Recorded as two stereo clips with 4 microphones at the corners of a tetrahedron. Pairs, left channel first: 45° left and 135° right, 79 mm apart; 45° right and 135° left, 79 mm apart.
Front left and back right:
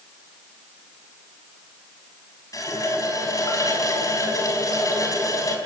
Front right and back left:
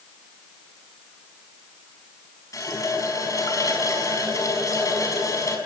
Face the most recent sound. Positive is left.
turn(degrees=0)